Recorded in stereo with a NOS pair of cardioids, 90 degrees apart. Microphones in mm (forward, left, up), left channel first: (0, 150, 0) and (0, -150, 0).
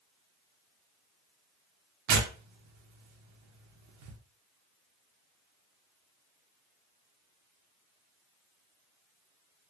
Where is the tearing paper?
70° right, 0.7 m.